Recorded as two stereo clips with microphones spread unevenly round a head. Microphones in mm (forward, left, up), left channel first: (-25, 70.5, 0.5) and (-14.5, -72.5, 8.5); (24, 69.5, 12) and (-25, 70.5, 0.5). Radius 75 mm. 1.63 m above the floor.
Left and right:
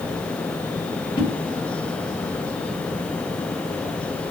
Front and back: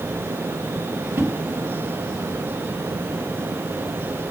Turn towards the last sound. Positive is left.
turn(degrees=145)